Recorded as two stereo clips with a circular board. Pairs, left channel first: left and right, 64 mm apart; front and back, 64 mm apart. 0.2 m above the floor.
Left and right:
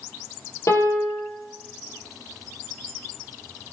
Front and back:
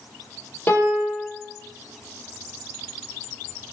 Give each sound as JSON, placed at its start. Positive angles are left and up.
{"t": 0.7, "sound": "a piano", "azimuth_deg": 60, "distance_m": 5.5}